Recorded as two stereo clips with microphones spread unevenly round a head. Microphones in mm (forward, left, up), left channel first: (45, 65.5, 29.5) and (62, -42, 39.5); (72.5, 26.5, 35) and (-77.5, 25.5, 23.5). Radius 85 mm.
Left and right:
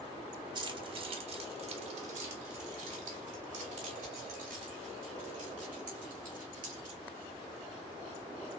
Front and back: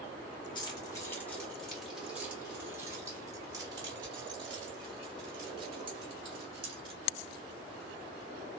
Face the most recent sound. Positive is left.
turn(degrees=-120)